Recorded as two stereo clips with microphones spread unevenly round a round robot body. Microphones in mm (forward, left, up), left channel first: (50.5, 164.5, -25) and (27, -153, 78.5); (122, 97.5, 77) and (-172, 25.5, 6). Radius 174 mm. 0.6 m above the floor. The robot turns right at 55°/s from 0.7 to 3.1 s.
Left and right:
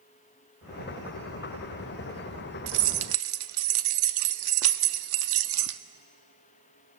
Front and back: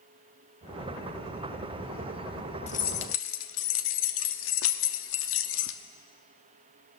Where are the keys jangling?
65° right, 0.5 m; by 5.8 s 40° right, 0.5 m.